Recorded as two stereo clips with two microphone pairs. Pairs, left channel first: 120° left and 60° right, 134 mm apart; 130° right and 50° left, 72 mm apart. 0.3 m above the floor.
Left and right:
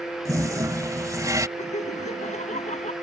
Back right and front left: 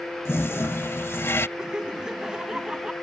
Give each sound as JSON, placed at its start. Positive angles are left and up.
{"t": 0.2, "sound": "a toilet flushing", "azimuth_deg": -110}
{"t": 1.6, "sound": "laughter", "azimuth_deg": 125}